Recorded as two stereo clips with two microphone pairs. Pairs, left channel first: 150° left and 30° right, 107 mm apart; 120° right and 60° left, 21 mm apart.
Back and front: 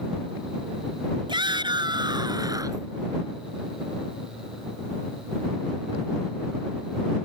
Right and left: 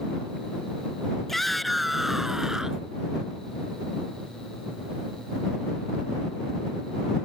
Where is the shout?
40° right; by 2.9 s 20° left.